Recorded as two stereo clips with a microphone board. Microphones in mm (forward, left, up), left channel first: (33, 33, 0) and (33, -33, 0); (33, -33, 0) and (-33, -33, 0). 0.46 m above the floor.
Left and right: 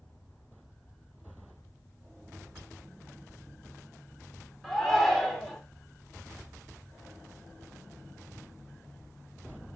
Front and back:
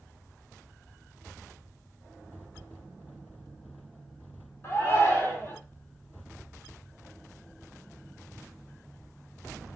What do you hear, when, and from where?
4.6 s a shout: 10° left, 1.1 m